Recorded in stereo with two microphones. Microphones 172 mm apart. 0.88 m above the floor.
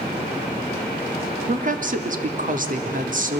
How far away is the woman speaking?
About 2 m.